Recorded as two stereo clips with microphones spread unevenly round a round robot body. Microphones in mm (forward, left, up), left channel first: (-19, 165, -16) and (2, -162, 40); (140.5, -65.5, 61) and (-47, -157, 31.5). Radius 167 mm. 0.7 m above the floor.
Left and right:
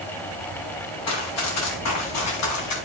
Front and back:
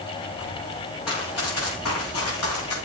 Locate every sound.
1.1 s running footsteps: 45° left, 8.5 m; by 2.8 s 50° left, 7 m